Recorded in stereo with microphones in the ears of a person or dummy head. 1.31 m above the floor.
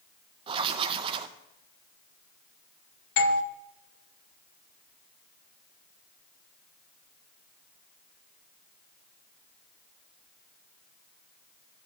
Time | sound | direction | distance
0.5 | writing | 30° right (ahead or behind) | 0.6 m
3.2 | a doorbell | 55° left (ahead or behind) | 0.7 m